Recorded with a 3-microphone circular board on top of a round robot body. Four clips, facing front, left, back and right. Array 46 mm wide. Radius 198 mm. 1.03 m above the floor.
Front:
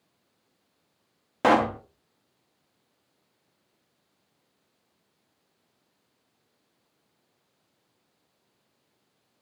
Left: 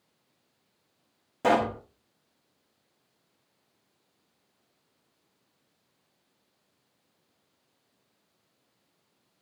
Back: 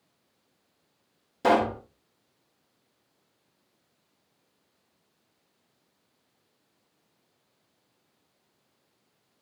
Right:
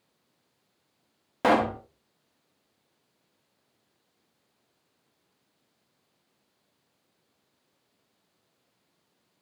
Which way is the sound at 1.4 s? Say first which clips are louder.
Right 1 dB, front 2 dB; 30° right.